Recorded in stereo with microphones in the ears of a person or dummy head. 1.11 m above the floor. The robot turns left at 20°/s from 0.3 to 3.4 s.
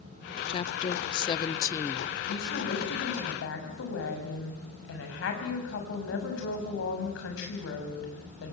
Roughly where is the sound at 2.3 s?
Left.